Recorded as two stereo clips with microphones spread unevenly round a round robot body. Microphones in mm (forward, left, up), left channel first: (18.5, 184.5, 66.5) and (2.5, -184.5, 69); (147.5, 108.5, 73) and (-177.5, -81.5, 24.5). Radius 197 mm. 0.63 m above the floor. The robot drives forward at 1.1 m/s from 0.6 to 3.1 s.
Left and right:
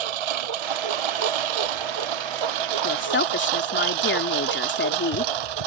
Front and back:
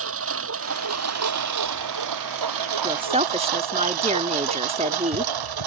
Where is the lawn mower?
90° right; by 5.7 s 115° right.